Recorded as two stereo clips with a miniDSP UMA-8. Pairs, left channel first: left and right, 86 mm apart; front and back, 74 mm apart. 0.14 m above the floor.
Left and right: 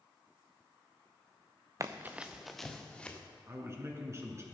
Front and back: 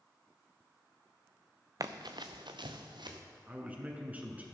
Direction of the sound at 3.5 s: 125° right.